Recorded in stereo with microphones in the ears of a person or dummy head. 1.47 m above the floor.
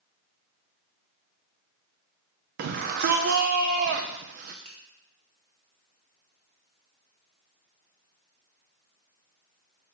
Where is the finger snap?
40° right (ahead or behind), 2 m.